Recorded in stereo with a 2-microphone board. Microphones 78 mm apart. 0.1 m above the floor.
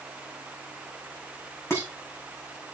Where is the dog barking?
I don't hear a dog barking.